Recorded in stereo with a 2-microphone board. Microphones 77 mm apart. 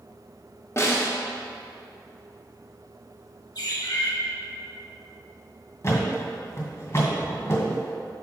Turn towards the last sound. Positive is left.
turn(degrees=40)  # may be behind; listen again after turning